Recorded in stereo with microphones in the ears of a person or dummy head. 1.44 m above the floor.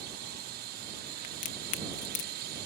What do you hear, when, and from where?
0.0 s a drone: 50° right (ahead or behind)
1.2 s a crack: 45° left (ahead or behind)